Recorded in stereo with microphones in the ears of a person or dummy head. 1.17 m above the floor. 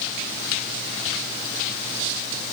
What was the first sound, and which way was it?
Only background noise.